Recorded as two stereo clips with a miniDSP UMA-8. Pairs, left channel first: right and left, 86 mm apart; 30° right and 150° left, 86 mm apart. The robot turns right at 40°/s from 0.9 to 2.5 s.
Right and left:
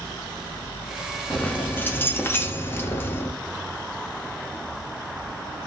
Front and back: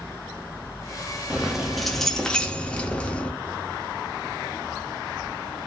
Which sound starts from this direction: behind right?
Keys jangling, at 1.3 s.